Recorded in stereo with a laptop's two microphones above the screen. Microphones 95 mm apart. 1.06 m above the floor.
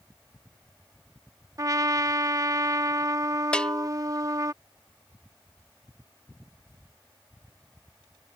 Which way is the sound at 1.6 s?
35° right (ahead or behind).